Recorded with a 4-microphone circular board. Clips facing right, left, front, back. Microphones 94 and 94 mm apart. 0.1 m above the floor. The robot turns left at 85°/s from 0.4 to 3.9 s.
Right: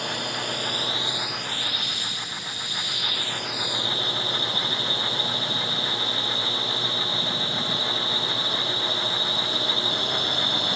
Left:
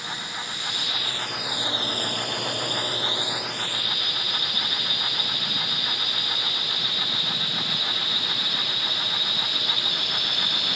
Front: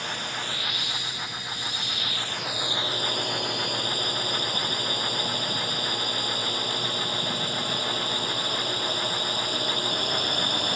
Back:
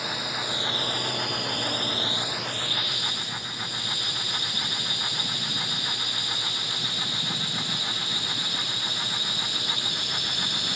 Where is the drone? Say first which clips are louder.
Right 5 dB, back 1 dB; 100° right; by 10.8 s 35° right.